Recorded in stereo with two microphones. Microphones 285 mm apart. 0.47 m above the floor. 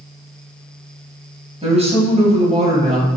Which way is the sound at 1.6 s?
20° right (ahead or behind).